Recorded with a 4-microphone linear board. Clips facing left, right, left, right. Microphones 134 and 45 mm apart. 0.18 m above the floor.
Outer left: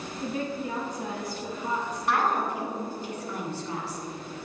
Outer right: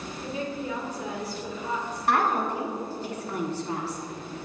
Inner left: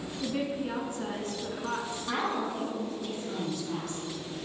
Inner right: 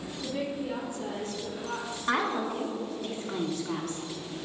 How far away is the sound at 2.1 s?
About 1.3 m.